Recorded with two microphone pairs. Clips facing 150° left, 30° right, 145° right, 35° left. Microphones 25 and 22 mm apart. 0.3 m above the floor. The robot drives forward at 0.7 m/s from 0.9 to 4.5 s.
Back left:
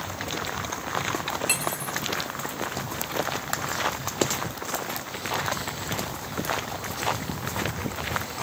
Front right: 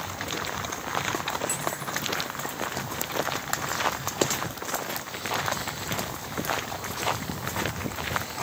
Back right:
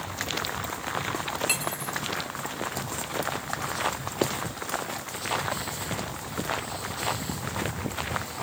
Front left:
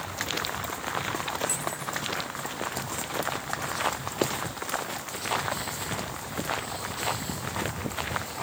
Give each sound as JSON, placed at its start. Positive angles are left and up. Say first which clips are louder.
{"t": 1.5, "sound": "cutlery clinking", "louder": "back left 3 dB, back right 3 dB", "azimuth_deg": -175}